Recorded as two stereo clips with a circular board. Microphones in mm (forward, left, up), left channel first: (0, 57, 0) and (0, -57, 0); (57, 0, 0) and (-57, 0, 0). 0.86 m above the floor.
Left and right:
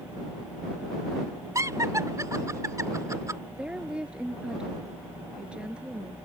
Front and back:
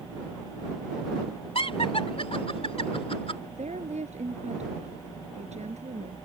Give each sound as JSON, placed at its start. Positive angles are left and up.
{"t": 1.6, "sound": "laughter", "azimuth_deg": -30}
{"t": 3.5, "sound": "a woman speaking", "azimuth_deg": -170}